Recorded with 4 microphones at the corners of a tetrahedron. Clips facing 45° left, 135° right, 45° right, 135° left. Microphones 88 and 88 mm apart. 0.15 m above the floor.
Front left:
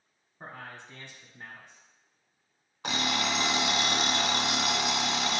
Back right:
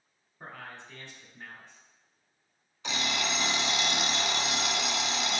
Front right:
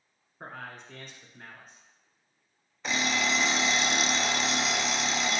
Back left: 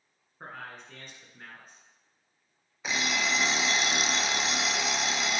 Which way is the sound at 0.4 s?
45° left.